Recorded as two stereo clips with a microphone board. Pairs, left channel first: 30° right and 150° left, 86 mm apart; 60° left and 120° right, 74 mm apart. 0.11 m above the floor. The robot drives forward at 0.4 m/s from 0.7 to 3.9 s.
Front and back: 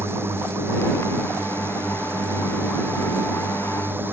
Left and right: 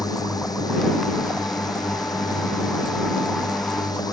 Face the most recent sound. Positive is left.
turn(degrees=85)